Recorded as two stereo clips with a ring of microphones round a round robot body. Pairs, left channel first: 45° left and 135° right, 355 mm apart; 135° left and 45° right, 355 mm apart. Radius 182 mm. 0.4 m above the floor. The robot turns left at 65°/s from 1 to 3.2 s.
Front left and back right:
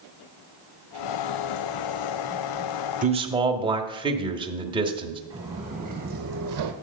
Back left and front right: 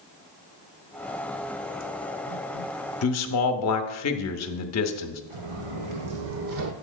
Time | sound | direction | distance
3.0 | a man speaking | 165° left | 1.0 m
5.3 | footsteps | 60° right | 2.5 m